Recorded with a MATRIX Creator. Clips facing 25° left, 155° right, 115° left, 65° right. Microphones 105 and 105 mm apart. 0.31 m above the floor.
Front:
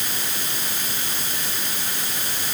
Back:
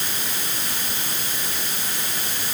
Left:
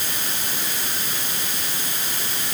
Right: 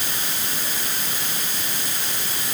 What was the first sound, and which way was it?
Only background noise.